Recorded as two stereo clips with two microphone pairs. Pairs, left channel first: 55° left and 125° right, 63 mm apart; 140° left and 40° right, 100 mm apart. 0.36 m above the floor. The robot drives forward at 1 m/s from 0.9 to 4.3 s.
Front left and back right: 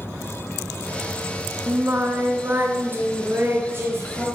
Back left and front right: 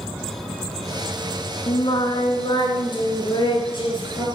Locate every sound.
1.7 s singing: straight behind, 1.6 m